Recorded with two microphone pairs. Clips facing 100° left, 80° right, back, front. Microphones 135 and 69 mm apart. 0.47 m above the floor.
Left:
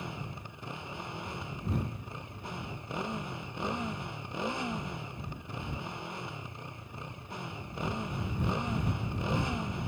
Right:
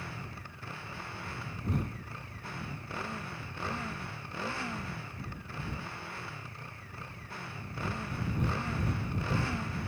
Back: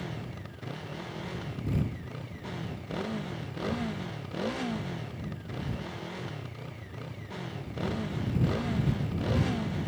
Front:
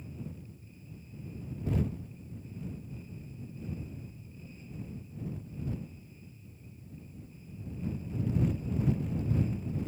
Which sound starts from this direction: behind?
A motorcycle, at 0.0 s.